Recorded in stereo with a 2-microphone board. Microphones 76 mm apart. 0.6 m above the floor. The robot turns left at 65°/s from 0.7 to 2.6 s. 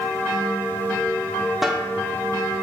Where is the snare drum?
5° right (ahead or behind), 1.5 m; by 1.9 s 10° left (ahead or behind), 1.5 m.